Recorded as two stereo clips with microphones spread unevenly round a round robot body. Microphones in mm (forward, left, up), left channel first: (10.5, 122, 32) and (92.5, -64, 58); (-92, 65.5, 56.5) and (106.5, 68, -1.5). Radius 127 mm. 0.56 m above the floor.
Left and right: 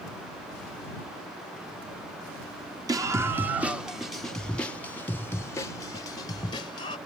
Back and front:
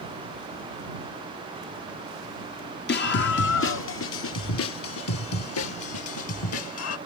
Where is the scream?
140° right; by 7.0 s straight behind.